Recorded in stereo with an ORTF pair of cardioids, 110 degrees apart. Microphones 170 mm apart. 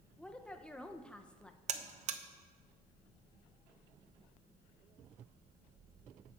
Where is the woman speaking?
5° left, 0.8 m.